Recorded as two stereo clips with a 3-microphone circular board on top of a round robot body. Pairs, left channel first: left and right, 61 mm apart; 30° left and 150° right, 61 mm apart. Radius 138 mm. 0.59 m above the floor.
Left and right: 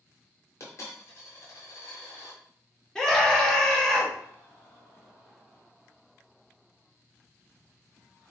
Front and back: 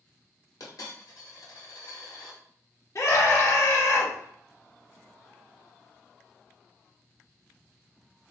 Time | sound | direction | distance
0.6 | a dropped coin | 50° left | 1.4 m
3.0 | a scream | 15° left | 1.7 m